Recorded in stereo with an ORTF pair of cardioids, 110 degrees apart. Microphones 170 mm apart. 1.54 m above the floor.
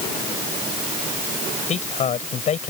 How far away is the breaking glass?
I don't hear breaking glass.